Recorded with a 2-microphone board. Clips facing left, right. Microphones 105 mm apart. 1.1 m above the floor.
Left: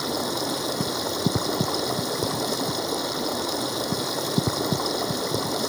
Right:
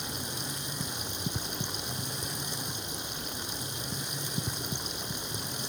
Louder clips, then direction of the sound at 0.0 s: Left 13 dB; 85° left.